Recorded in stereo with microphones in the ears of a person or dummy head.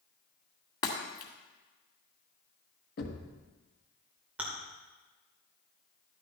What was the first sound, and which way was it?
Breaking glass, 25° left (ahead or behind).